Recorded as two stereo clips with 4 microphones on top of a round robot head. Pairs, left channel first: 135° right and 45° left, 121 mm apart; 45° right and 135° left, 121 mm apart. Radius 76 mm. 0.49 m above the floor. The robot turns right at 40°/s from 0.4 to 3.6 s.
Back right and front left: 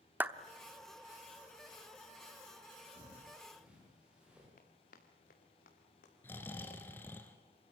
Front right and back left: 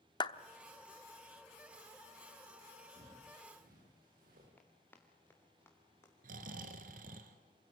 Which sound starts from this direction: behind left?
Snoring, at 6.2 s.